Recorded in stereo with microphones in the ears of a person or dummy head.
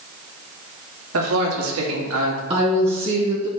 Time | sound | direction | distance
1.1 | a man speaking | 80° right | 3 m
2.5 | a woman speaking | 30° right (ahead or behind) | 1.1 m